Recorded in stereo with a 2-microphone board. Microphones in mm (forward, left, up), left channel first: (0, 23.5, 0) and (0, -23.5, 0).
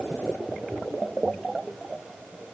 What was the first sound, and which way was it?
Only background noise.